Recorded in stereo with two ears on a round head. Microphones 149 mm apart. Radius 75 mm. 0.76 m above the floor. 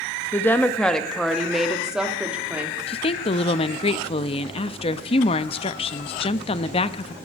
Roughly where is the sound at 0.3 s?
Centre.